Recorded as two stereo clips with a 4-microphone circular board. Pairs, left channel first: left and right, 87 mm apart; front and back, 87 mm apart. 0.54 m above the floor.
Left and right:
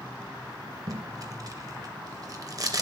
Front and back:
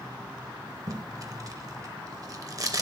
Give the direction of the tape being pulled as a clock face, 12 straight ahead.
4 o'clock.